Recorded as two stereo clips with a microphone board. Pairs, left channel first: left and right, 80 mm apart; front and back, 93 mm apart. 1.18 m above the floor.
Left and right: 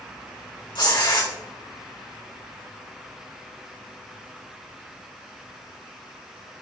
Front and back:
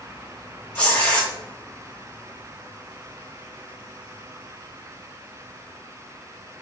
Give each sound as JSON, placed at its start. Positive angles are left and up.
{"t": 0.8, "sound": "tearing paper", "azimuth_deg": 75, "distance_m": 3.0}